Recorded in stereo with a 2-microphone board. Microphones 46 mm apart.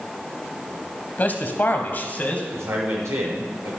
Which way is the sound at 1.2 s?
35° left (ahead or behind).